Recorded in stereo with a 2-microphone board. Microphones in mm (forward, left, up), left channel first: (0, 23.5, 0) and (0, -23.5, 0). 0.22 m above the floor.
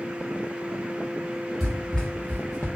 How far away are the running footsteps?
About 1.6 m.